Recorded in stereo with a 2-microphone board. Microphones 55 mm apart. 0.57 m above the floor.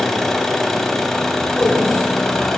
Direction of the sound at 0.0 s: 5° left (ahead or behind).